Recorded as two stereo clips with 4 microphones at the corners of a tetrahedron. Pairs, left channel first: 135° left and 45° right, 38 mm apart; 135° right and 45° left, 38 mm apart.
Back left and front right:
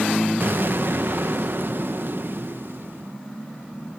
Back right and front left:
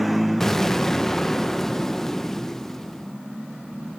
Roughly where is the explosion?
Ahead right.